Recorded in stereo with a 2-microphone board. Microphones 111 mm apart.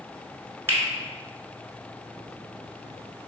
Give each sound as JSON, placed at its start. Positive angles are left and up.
{"t": 0.7, "sound": "a finger snap", "side_deg": -25, "distance_m": 1.1}